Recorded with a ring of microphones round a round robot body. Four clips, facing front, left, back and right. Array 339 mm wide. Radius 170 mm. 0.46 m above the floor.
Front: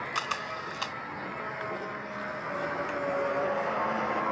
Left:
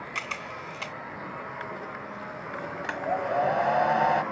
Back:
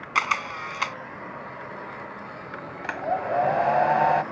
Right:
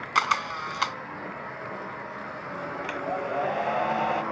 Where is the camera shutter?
125° right.